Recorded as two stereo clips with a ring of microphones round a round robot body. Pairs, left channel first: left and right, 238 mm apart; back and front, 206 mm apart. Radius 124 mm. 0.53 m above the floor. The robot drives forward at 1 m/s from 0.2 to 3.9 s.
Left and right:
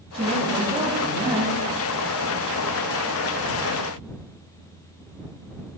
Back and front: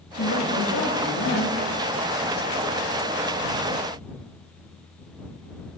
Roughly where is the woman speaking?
Behind right.